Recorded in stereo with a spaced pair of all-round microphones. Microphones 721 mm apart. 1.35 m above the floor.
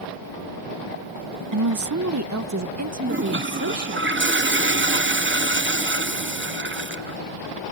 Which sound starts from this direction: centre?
A toilet flushing, at 3.1 s.